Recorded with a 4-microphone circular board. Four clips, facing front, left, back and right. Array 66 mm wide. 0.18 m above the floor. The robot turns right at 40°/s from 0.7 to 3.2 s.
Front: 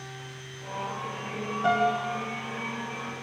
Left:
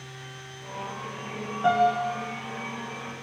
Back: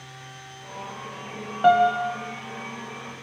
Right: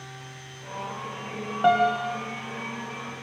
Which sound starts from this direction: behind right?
A piano, at 1.6 s.